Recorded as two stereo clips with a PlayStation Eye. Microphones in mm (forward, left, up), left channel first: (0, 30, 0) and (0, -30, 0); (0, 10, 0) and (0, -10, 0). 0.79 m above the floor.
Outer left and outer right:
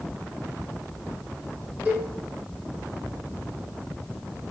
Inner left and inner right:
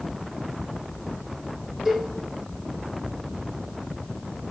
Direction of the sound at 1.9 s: 30° right (ahead or behind).